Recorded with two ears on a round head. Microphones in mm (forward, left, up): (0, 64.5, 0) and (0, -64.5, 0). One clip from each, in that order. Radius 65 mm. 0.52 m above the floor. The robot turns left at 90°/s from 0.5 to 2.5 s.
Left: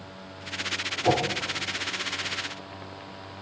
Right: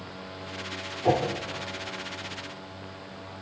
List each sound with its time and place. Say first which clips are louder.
1.0 s a whoosh: even; 5° left (ahead or behind), 1.1 m; by 1.2 s 20° left (ahead or behind), 1.1 m